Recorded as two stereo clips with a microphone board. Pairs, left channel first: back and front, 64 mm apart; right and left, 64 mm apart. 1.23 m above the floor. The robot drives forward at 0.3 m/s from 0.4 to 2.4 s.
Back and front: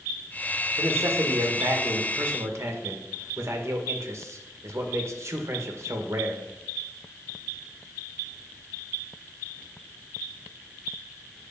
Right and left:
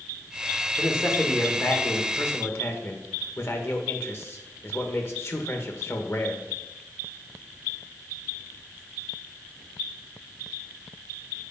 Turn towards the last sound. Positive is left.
turn(degrees=-45)